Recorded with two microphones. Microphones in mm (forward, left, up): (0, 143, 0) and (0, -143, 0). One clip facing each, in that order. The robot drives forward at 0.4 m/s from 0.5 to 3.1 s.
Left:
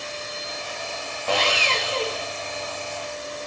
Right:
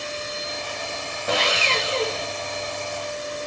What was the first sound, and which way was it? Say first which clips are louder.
Sawing: even; 20° right (ahead or behind).